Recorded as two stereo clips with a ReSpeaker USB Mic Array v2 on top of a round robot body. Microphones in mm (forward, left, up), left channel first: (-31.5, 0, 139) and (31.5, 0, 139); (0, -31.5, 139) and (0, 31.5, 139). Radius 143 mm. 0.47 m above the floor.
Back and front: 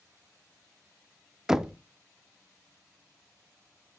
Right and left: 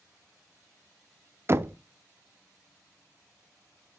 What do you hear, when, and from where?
1.5 s knocking: 75° left, 0.5 m